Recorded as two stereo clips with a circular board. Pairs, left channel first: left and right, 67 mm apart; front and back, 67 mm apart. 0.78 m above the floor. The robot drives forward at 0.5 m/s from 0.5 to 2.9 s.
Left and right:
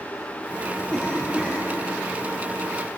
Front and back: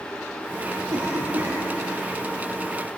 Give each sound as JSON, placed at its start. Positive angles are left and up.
{"t": 0.9, "sound": "a cough", "azimuth_deg": 160, "distance_m": 6.0}